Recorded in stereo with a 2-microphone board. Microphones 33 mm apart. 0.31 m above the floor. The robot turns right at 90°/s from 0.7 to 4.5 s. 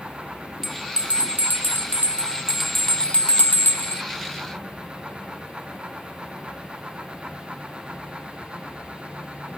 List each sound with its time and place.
0.6 s a bell: 5° left (ahead or behind); by 4.0 s 65° left (ahead or behind)